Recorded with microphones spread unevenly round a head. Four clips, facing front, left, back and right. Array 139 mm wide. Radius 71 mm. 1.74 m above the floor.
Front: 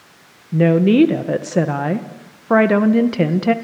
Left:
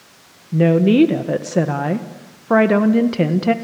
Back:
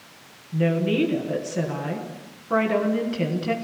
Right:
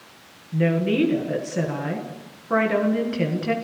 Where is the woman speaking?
35° left, 1.5 m.